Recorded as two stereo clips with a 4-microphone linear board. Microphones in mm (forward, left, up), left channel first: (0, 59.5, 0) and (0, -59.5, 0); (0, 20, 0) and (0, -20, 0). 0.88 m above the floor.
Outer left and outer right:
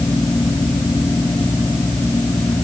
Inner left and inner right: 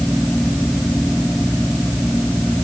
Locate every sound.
Only background noise.